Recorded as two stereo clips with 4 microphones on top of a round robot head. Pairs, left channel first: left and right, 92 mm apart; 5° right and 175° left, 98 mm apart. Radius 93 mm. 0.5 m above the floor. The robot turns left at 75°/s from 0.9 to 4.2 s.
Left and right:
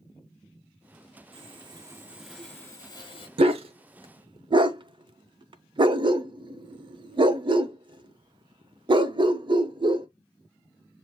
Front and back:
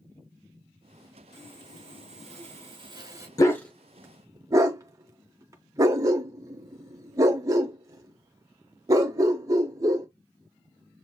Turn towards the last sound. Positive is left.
turn(degrees=-125)